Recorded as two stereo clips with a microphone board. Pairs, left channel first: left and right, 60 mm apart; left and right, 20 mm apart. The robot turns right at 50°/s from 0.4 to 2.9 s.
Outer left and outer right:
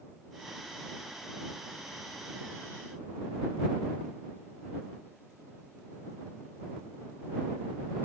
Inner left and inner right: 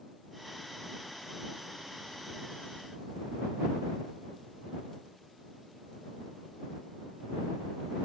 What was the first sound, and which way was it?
Only background noise.